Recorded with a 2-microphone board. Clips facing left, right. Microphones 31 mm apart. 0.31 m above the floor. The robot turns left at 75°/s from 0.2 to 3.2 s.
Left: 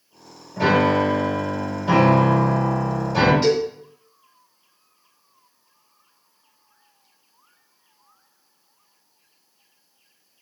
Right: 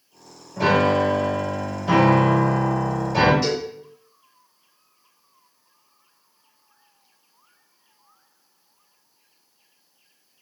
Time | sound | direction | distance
0.6 | a piano | 15° left (ahead or behind) | 1.2 m
3.4 | a cowbell | 35° left (ahead or behind) | 1.6 m